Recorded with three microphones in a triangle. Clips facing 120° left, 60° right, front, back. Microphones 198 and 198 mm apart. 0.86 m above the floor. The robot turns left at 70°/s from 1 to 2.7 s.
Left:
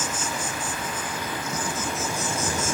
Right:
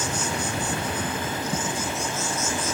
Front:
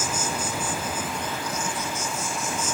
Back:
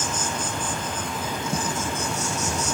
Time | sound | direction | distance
0.0 | an insect | 80° right | 5 m